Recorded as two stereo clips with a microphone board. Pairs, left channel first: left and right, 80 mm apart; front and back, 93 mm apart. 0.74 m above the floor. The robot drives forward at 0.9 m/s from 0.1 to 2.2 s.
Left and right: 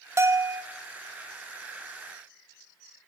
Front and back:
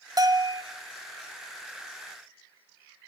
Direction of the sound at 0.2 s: 140° right.